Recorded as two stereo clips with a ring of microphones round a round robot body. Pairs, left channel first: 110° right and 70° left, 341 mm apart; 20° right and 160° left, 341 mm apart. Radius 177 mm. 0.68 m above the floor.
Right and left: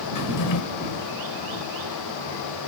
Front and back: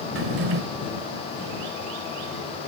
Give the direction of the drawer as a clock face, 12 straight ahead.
5 o'clock.